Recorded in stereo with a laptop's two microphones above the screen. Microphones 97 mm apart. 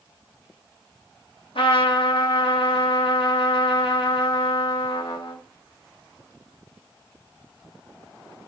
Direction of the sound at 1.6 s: 75° left (ahead or behind).